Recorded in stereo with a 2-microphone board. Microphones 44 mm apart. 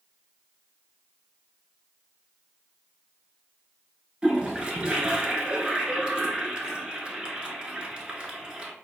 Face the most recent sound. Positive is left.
turn(degrees=-20)  # may be behind; listen again after turning